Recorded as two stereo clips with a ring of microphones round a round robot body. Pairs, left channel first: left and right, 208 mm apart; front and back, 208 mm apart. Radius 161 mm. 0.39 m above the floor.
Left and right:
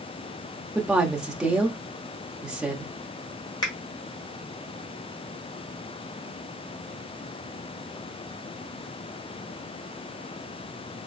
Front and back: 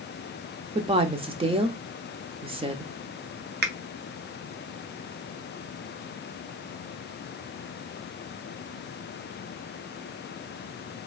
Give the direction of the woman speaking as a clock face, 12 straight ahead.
6 o'clock.